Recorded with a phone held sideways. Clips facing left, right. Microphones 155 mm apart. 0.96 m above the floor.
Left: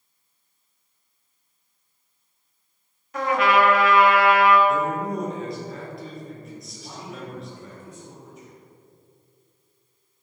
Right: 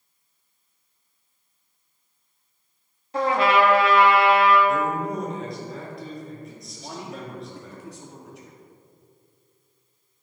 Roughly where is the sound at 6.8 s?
Right.